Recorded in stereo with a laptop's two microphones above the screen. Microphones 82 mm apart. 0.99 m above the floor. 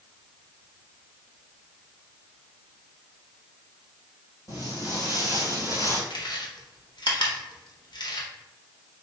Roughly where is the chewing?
Left.